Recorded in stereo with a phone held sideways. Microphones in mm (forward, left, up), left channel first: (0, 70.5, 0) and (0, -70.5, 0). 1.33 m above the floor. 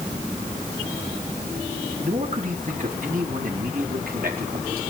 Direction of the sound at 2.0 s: 50° right (ahead or behind).